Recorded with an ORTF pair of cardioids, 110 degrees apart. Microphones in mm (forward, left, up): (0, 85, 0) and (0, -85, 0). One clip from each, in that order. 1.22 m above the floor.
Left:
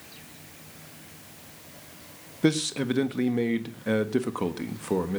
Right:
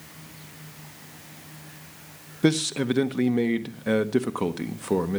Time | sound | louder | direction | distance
2.4 | a man speaking | right 2 dB | 10° right | 1.4 m